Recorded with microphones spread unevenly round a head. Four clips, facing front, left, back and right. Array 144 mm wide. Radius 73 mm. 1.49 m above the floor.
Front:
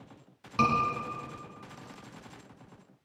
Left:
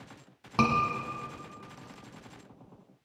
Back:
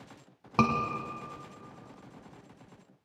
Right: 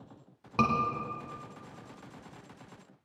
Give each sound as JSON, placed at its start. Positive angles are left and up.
{"t": 0.6, "sound": "a scream", "azimuth_deg": 175, "distance_m": 1.5}